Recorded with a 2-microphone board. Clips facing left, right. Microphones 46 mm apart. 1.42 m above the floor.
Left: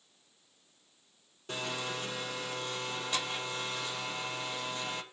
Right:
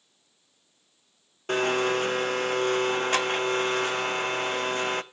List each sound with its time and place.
1.5 s a blender: 60° right (ahead or behind), 0.5 m